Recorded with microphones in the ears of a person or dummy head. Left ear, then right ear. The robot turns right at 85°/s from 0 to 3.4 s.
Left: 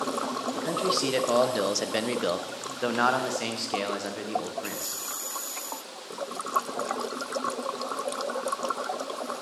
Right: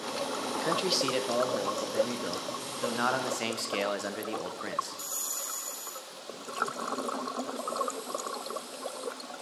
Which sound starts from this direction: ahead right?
A man speaking, at 0.5 s.